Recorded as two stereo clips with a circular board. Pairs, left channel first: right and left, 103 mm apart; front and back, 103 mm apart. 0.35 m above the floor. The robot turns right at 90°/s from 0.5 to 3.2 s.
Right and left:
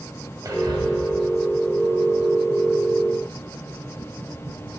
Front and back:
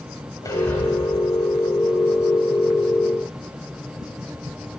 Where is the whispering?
45° left, 2 m; by 0.8 s 75° left, 2 m.